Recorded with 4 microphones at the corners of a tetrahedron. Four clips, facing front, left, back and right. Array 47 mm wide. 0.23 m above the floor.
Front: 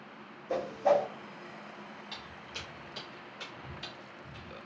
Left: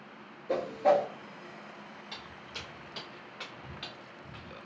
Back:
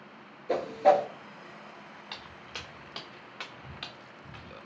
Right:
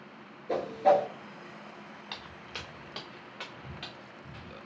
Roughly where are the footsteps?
Behind right.